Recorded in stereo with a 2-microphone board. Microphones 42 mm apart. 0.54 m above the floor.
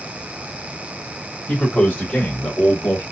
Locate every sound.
1.5 s a man speaking: 35° left (ahead or behind), 2.5 m; by 3.0 s 55° left (ahead or behind), 2 m